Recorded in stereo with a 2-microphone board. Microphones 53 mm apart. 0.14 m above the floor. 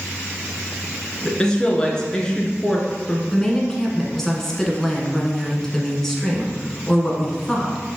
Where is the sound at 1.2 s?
15° left (ahead or behind), 1.5 m.